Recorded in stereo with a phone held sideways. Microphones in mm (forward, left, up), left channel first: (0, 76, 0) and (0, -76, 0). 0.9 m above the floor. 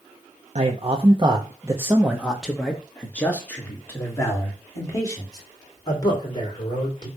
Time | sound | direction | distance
0.6 | a man speaking | 50° right (ahead or behind) | 1.0 m